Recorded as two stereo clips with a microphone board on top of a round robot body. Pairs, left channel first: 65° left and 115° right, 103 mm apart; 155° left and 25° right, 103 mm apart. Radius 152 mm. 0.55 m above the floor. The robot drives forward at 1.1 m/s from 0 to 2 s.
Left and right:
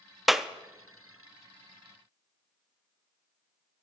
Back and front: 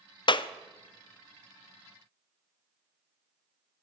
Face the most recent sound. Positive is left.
turn(degrees=175)